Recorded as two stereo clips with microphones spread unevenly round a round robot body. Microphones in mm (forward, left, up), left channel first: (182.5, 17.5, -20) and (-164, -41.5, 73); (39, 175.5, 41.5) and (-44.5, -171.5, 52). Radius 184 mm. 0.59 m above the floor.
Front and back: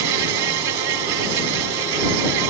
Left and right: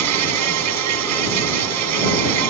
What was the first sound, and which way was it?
An insect, 145° right.